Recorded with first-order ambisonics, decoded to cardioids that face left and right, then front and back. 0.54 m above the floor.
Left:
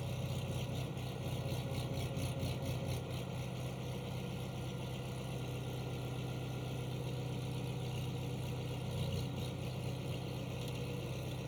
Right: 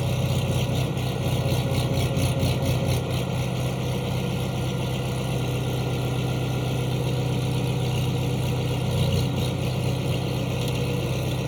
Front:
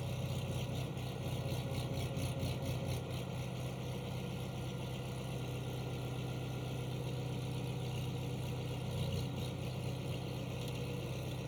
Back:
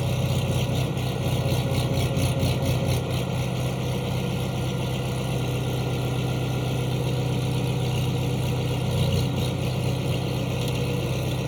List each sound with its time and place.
0.0 s an engine running: 135° right